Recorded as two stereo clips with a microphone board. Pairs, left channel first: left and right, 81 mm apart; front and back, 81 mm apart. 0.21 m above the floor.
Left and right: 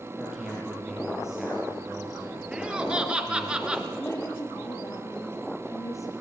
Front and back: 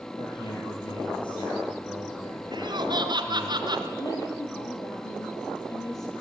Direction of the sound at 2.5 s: 165° right.